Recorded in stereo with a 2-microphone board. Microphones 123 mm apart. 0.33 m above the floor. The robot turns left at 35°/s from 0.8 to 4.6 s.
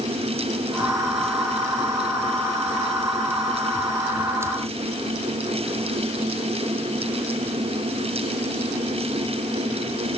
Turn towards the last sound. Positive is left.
No sound to turn to.